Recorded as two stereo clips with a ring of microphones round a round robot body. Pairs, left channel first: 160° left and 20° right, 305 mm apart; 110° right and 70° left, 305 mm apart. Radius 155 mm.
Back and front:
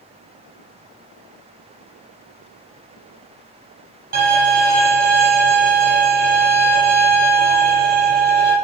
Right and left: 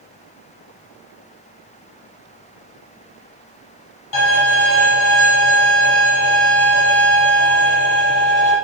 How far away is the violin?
About 7.5 m.